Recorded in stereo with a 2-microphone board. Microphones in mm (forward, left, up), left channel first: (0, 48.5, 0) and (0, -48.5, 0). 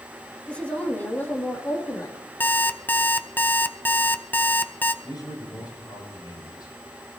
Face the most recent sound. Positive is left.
turn(degrees=45)  # may be behind; listen again after turning